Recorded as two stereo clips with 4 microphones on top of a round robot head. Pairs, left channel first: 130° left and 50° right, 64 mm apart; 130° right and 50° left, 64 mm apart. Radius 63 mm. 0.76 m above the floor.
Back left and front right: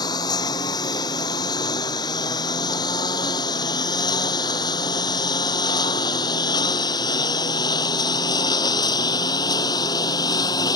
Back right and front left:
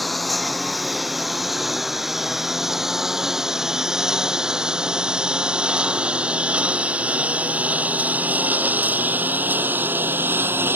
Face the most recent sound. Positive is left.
turn(degrees=110)